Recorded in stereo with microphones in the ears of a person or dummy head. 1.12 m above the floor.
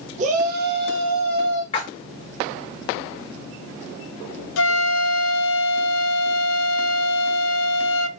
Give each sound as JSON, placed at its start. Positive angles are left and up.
{"t": 0.2, "sound": "a shout", "side_deg": -40, "distance_m": 1.2}
{"t": 1.7, "sound": "a splash", "side_deg": 30, "distance_m": 2.0}
{"t": 4.6, "sound": "a flute", "side_deg": 65, "distance_m": 0.8}